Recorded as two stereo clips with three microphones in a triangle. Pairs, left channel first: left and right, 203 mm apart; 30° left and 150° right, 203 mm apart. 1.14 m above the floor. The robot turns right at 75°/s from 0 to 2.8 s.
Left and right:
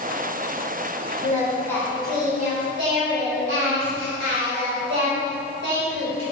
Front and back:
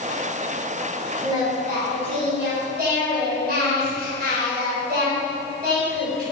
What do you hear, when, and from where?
1.2 s singing: 135° left, 3 m; by 6.2 s 110° right, 3 m